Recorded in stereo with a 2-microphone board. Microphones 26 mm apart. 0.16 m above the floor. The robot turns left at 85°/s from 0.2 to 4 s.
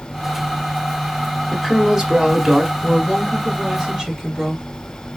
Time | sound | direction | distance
1.5 | a woman speaking | 15° left (ahead or behind) | 1.1 m
2.8 | a woman speaking | 75° left | 3 m